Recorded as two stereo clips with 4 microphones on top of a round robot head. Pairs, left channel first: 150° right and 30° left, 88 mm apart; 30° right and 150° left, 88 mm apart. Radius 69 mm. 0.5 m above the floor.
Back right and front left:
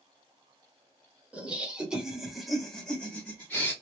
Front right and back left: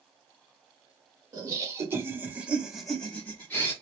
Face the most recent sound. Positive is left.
turn(degrees=-85)